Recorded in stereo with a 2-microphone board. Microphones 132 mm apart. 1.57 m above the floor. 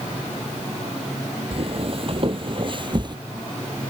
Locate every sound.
1.5 s footsteps: 50° right (ahead or behind); by 3.2 s 35° right (ahead or behind)